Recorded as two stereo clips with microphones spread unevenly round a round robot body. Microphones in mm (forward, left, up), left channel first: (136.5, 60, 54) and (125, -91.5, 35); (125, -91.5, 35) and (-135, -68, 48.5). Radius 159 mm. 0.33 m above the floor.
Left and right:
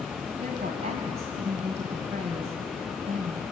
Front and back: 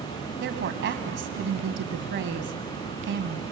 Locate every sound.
0.4 s a woman speaking: 145° right, 2 m